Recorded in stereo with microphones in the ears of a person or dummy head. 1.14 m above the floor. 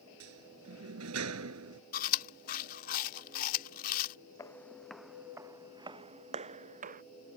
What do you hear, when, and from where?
0.2 s a sliding door: 85° right
1.9 s chewing: 50° left (ahead or behind)
4.4 s footsteps: 15° left (ahead or behind); by 7.0 s 35° right (ahead or behind)